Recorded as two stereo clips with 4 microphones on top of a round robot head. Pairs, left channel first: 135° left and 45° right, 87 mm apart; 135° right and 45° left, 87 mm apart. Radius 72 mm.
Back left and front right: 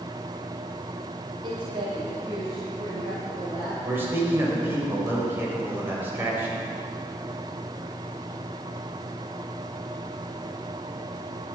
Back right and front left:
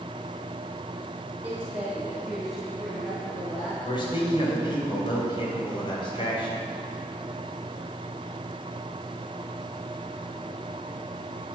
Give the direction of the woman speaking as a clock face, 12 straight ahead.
1 o'clock.